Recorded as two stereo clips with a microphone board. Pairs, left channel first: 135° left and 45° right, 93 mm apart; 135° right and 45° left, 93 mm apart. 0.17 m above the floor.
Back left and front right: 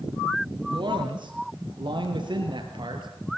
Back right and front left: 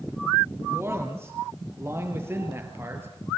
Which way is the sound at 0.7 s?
15° right.